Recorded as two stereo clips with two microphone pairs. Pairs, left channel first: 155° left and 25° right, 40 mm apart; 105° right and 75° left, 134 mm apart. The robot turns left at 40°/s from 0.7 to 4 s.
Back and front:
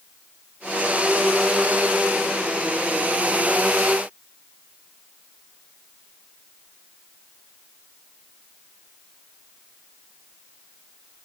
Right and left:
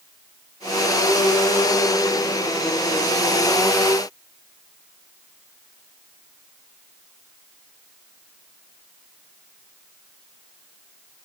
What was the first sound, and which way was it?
Only background noise.